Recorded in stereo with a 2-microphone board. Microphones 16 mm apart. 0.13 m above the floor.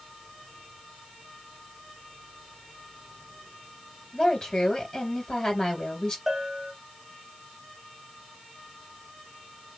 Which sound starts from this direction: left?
A woman speaking, at 4.1 s.